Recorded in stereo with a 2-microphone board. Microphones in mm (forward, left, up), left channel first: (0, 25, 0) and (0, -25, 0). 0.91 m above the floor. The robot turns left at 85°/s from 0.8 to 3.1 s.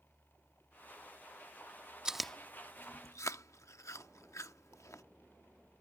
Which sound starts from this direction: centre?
Chewing, at 2.0 s.